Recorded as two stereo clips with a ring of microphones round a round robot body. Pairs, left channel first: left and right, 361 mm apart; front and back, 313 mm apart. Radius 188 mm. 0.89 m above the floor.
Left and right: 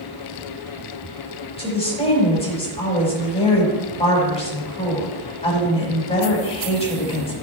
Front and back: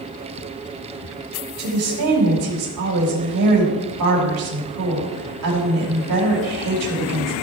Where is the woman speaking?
165° left, 5 m.